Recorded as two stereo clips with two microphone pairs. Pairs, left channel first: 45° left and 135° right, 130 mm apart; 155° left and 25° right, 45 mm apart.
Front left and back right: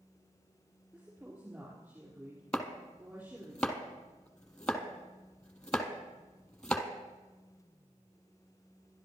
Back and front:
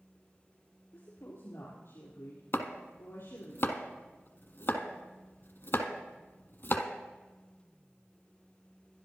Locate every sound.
0.9 s a woman speaking: 150° left, 5 m
2.5 s chopping: 125° left, 1.1 m